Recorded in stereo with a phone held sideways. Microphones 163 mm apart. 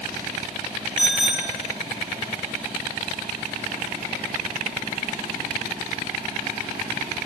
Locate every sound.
1.0 s a bicycle bell: 5° right (ahead or behind), 9.5 m